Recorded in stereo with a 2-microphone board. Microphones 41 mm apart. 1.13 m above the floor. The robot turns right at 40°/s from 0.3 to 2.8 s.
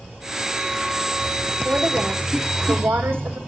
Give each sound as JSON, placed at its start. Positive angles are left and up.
{"t": 1.6, "sound": "a woman speaking", "azimuth_deg": -145, "distance_m": 4.5}